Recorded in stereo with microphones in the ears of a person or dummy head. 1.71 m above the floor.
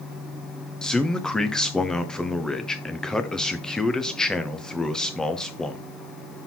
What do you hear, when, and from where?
0.8 s a man speaking: 5° right (ahead or behind), 0.6 m